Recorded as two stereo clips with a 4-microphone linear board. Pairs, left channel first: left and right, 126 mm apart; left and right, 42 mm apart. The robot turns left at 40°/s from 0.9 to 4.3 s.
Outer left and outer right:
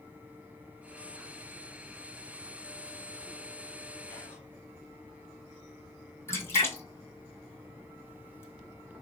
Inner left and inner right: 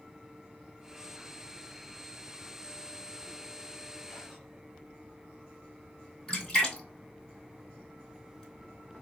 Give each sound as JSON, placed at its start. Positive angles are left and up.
{"t": 4.1, "sound": "whispering", "side_deg": 20, "distance_m": 1.3}
{"t": 6.3, "sound": "a splash", "side_deg": 20, "distance_m": 1.3}